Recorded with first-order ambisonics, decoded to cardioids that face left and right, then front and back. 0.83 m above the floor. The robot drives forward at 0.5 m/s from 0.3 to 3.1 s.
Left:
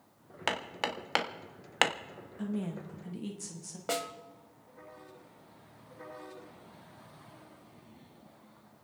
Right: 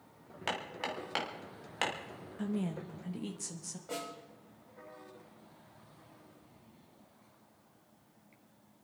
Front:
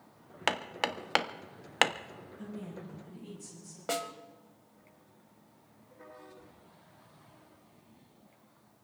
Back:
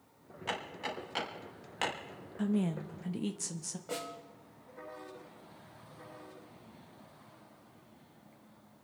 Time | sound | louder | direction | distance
0.5 | hammering | left 4 dB, front 6 dB | 20° left | 1.6 m
2.4 | a woman speaking | even, back 11 dB | 170° right | 0.8 m
3.9 | a snare drum | left 7 dB, front 6 dB | 50° left | 2.0 m